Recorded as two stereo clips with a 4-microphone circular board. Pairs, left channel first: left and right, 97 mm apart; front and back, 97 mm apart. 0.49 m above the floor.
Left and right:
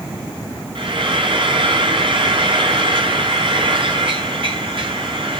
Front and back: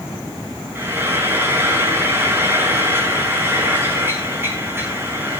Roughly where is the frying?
Behind right.